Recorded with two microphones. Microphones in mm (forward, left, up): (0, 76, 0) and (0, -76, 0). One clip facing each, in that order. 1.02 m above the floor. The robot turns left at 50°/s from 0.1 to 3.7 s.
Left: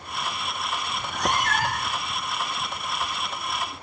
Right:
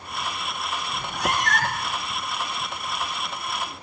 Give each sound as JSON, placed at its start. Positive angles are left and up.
{"t": 0.9, "sound": "a cat meowing", "azimuth_deg": -155, "distance_m": 3.5}